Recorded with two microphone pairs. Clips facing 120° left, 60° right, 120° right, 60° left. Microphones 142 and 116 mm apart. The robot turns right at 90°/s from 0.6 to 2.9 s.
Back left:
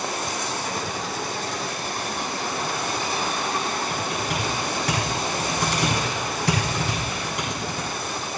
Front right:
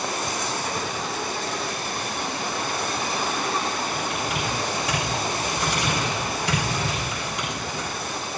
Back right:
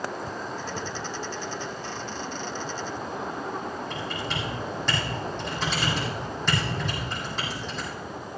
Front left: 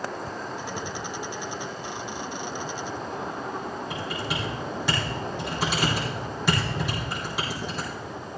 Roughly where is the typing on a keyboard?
Behind left.